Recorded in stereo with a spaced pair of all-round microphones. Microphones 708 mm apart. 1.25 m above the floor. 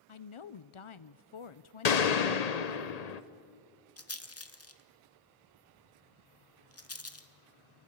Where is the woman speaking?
45° left (ahead or behind), 0.6 m.